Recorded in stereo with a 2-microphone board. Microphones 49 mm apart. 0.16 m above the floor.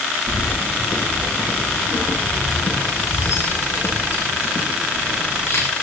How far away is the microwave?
No microwave in this recording.